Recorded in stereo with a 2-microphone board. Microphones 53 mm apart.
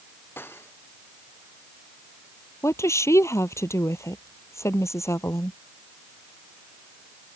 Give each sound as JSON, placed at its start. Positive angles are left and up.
{"t": 0.4, "sound": "cutlery clinking", "side_deg": 45}
{"t": 2.6, "sound": "a woman speaking", "side_deg": 65}